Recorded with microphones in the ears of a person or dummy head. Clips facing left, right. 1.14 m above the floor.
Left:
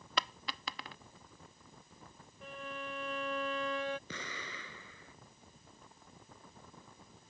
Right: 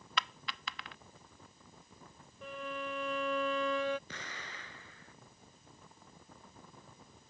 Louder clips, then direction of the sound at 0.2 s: Left 2 dB; 30° left (ahead or behind).